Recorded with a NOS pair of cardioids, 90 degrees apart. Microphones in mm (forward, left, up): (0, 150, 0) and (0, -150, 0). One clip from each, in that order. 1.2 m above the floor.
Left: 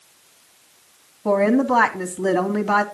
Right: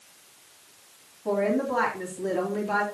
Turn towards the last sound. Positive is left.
turn(degrees=70)